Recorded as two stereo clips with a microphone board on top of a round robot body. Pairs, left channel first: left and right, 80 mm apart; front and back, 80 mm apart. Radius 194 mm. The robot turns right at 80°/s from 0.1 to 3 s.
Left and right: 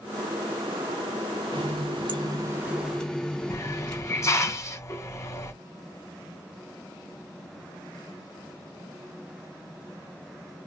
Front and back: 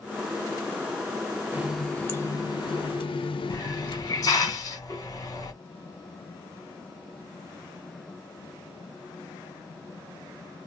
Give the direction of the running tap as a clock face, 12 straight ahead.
4 o'clock.